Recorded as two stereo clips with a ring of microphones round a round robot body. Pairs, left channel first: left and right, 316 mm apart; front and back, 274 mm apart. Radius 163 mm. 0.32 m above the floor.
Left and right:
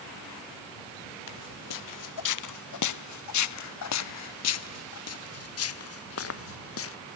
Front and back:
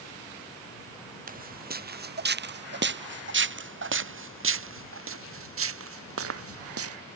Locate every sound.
1.3 s footsteps: 120° left; by 7.0 s 140° left